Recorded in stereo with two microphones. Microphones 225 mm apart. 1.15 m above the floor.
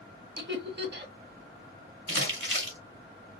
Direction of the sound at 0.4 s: 50° right (ahead or behind).